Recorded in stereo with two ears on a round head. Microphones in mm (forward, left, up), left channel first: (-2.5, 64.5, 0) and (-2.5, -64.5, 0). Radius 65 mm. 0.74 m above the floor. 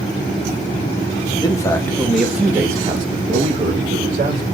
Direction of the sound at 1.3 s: 30° left (ahead or behind).